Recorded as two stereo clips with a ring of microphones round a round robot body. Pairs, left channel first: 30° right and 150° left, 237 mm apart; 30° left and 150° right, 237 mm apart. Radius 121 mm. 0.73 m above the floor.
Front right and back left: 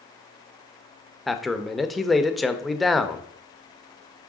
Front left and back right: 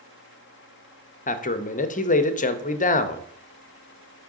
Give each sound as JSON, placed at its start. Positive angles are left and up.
{"t": 1.3, "sound": "a man speaking", "azimuth_deg": 60, "distance_m": 0.6}